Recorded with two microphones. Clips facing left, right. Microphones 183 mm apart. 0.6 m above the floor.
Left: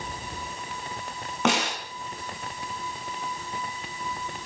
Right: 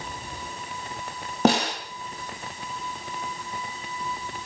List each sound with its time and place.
1.4 s a snare drum: 35° right (ahead or behind), 3 m